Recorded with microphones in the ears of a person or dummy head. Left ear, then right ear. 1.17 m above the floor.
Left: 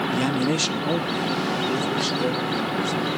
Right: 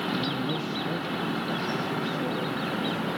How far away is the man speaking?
About 0.6 m.